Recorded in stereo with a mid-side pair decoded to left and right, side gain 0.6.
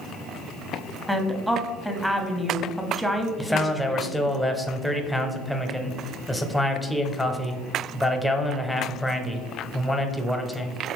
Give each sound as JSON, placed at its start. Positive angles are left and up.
{"t": 1.1, "sound": "a woman speaking", "azimuth_deg": 0, "distance_m": 0.7}
{"t": 3.4, "sound": "a man speaking", "azimuth_deg": 5, "distance_m": 0.6}